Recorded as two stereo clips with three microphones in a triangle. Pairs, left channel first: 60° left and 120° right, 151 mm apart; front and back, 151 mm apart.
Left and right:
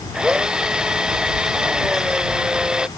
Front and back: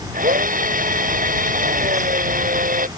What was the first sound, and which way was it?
A drill, 155° left.